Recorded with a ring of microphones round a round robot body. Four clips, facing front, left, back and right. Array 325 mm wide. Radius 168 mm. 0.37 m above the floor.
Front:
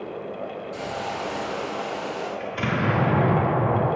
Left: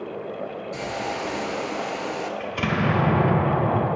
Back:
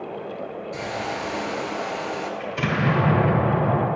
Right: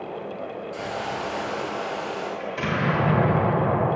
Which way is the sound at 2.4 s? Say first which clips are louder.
Left 1 dB, back 1 dB; 130° left.